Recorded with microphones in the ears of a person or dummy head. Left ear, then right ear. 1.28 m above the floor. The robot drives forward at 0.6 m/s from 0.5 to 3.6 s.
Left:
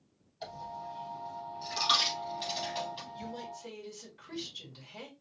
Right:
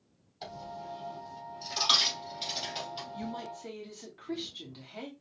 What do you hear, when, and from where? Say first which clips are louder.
0.4 s a dropped coin: even; 15° right (ahead or behind), 4 m; by 3.3 s 20° right (ahead or behind), 2.5 m
3.1 s a woman speaking: right 2 dB; 35° right (ahead or behind), 1.4 m; by 5.1 s 30° right (ahead or behind), 1.6 m